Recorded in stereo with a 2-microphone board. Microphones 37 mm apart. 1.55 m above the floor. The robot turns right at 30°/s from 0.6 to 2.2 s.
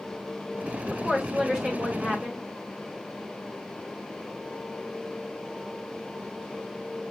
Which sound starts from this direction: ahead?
A woman speaking, at 0.9 s.